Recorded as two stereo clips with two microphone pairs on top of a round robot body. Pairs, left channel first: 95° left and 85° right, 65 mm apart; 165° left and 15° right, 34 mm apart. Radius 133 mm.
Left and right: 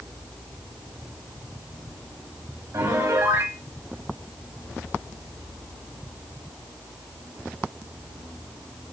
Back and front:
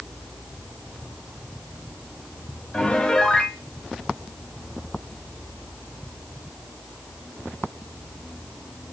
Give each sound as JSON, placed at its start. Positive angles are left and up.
{"t": 2.7, "sound": "a piano", "azimuth_deg": -130, "distance_m": 1.0}